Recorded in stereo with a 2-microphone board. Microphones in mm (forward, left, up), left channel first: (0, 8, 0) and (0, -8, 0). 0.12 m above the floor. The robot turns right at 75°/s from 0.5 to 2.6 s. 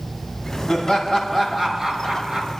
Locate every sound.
0.7 s laughter: 115° left, 4.5 m; by 2.5 s 105° right, 4.5 m